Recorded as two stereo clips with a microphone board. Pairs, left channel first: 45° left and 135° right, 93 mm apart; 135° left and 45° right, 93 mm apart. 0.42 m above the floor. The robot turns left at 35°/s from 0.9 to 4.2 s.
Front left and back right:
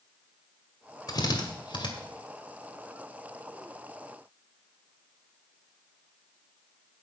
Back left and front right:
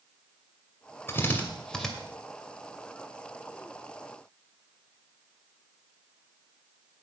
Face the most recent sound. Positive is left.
turn(degrees=-35)